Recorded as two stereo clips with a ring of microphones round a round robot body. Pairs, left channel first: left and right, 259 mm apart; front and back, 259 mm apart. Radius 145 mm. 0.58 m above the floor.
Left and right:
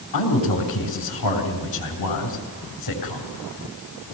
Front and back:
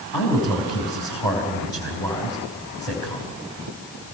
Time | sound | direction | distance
0.1 | a man speaking | 80° left | 4 m